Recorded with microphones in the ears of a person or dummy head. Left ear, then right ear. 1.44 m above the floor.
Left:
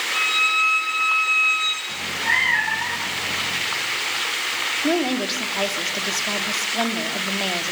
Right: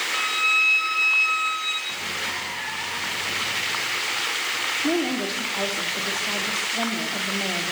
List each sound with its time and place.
0.1 s a violin: 20° left (ahead or behind), 4 m
1.9 s a cat meowing: 60° left (ahead or behind), 2.5 m
4.8 s a woman speaking: 30° left (ahead or behind), 3 m